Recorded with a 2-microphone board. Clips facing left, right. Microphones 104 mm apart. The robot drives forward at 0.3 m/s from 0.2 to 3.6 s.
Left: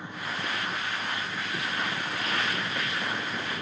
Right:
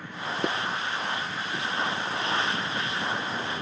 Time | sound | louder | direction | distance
0.4 | dishes clattering | right 8 dB | 55° right (ahead or behind) | 2 m